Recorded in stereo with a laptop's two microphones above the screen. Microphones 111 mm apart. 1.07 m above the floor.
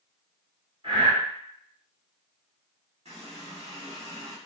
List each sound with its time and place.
0.8 s breathing: 55° right (ahead or behind), 1.7 m
3.0 s a running tap: 70° right (ahead or behind), 1.5 m